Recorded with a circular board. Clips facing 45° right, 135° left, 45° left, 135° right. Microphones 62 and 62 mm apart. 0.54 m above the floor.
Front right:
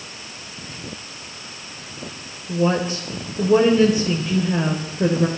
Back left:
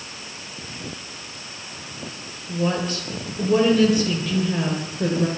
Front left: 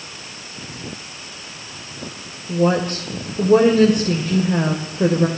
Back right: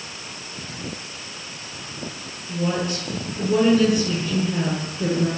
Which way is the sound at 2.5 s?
20° left.